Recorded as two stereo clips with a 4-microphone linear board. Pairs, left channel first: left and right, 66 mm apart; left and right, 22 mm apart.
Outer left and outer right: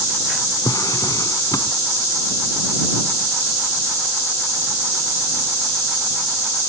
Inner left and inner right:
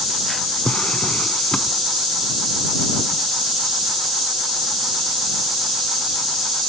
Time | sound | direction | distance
0.7 | a drawer | 70° left (ahead or behind) | ?